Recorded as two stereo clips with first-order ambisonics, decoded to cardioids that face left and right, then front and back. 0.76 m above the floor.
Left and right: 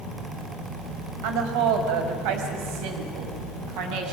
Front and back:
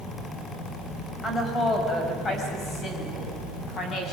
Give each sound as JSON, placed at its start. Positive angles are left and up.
{"t": 1.2, "sound": "a woman speaking", "azimuth_deg": -80, "distance_m": 4.0}